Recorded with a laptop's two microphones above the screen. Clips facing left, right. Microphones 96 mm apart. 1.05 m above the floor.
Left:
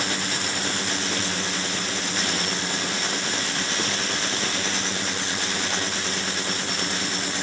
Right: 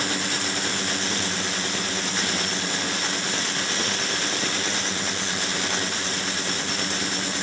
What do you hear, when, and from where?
Only background noise.